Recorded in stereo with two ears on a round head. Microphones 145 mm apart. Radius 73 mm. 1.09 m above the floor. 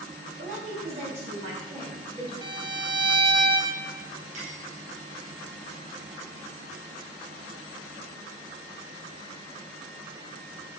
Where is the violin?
30° right (ahead or behind), 0.7 m.